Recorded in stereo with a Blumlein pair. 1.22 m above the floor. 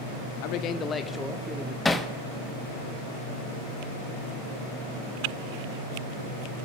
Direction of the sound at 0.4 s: 45° left.